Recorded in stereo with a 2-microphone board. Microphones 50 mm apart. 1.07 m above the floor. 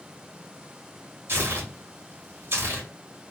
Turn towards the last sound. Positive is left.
turn(degrees=-50)  # may be behind; listen again after turning